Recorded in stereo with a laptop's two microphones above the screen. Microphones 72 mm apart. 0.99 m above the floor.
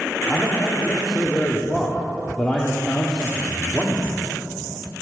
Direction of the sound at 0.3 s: 15° left (ahead or behind).